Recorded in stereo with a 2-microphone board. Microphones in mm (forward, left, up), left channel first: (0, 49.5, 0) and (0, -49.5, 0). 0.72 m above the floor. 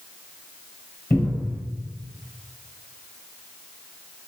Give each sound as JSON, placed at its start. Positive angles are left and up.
{"t": 1.1, "sound": "a cupboard door", "side_deg": 20, "distance_m": 1.9}